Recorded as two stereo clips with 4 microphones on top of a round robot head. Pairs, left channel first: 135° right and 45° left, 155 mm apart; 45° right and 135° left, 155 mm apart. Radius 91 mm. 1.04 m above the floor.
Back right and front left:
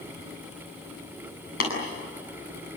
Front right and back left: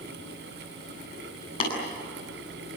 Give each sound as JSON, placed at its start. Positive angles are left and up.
{"t": 1.6, "sound": "tapping", "azimuth_deg": -105, "distance_m": 8.5}